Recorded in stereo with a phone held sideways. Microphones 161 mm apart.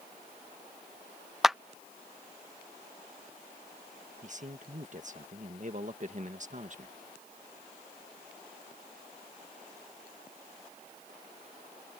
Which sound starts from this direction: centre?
A clap, at 1.4 s.